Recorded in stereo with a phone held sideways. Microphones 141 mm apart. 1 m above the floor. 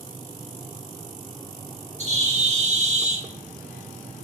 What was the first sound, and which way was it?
A bird, 50° right (ahead or behind).